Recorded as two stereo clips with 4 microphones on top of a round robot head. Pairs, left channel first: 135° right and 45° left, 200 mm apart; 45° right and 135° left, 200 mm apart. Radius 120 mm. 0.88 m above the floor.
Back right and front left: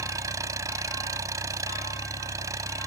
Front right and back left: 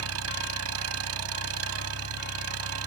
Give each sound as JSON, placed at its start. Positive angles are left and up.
{"t": 0.0, "sound": "an engine running", "azimuth_deg": 120}